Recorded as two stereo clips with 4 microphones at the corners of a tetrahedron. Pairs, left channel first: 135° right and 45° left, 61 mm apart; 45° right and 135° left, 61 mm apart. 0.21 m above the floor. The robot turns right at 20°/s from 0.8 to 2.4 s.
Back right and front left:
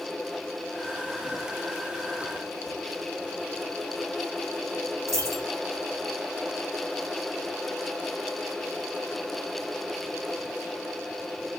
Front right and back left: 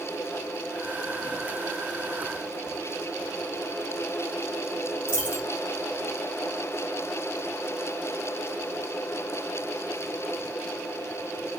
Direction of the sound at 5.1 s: 75° left.